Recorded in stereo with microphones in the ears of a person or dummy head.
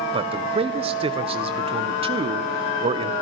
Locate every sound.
0.1 s a man speaking: 30° right (ahead or behind), 1.3 m